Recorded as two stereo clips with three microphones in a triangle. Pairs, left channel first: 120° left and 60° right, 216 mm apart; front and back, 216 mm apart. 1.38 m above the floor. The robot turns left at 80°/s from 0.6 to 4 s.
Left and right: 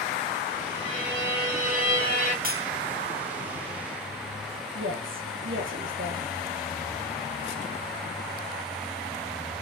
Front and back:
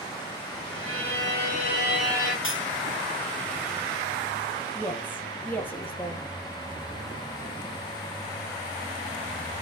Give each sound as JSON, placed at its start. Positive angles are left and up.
{"t": 0.7, "sound": "a violin", "azimuth_deg": -170, "distance_m": 4.0}
{"t": 2.4, "sound": "cutlery clinking", "azimuth_deg": -15, "distance_m": 1.7}
{"t": 4.8, "sound": "a woman speaking", "azimuth_deg": -80, "distance_m": 2.0}